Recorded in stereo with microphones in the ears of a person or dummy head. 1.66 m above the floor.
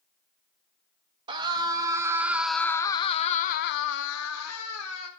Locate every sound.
1.3 s a scream: 25° right (ahead or behind), 1.2 m; by 5.1 s 80° left, 1.1 m